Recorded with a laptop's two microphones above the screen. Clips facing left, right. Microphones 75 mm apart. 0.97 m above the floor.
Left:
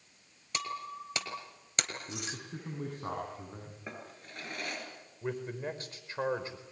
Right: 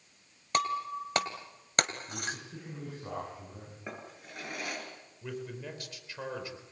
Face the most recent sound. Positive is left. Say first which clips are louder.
# left 4 dB
turn(degrees=35)  # may be behind; listen again after turning